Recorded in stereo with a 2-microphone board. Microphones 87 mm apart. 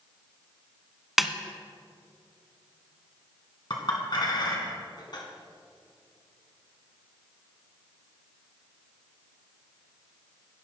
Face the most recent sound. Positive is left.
turn(degrees=55)  # may be behind; listen again after turning